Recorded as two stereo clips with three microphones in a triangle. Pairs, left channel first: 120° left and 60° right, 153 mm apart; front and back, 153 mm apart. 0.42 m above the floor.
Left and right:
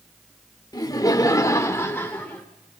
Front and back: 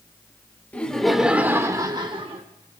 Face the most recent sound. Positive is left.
turn(degrees=-165)